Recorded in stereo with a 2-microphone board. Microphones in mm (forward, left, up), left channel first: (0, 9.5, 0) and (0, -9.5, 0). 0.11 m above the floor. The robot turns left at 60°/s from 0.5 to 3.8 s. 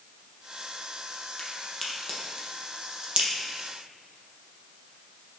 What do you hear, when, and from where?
1.4 s a crack: 30° left (ahead or behind), 2.5 m; by 3.3 s 70° right (ahead or behind), 2.5 m